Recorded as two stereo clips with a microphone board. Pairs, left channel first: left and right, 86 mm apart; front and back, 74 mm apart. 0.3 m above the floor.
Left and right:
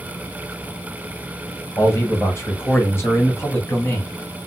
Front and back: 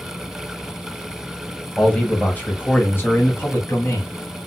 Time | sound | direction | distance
1.8 | a man speaking | 65° left | 1.8 m